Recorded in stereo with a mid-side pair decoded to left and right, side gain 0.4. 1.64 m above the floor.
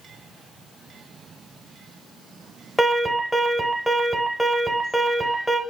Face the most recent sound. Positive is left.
turn(degrees=0)